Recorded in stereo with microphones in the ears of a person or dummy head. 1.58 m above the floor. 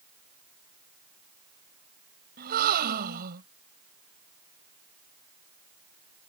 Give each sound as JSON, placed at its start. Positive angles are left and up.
{"t": 2.4, "sound": "a gasp", "side_deg": -50}